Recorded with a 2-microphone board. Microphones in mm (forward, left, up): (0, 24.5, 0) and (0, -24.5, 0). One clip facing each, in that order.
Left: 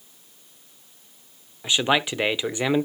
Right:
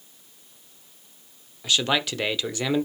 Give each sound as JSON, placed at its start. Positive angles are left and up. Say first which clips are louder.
{"t": 1.6, "sound": "a man speaking", "louder": "left 2 dB", "side_deg": 20, "distance_m": 0.8}